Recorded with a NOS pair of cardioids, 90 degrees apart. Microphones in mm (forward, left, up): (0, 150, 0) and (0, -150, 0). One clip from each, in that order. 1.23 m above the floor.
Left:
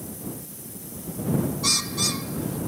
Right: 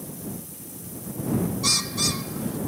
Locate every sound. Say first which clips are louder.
1.6 s a bird: right 1 dB; 5° right